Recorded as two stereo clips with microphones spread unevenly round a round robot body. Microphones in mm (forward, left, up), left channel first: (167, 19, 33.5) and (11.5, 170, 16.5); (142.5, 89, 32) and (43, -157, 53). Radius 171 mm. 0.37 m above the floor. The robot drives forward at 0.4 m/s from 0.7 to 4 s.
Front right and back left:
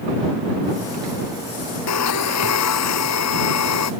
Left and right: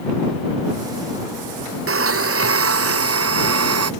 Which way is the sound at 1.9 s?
70° right.